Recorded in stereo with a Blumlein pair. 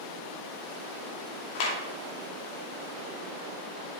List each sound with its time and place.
1.6 s a clap: 45° left, 2.5 m